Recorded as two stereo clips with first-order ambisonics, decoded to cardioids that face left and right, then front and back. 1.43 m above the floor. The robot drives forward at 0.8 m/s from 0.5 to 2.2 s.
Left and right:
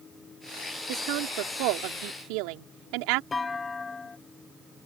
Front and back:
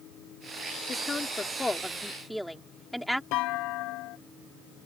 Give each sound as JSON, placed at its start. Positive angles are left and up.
{"t": 0.9, "sound": "a woman speaking", "azimuth_deg": -70}
{"t": 3.3, "sound": "a clunk", "azimuth_deg": 15}